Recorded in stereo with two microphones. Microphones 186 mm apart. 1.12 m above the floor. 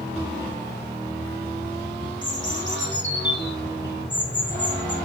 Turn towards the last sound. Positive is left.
turn(degrees=70)  # may be behind; listen again after turning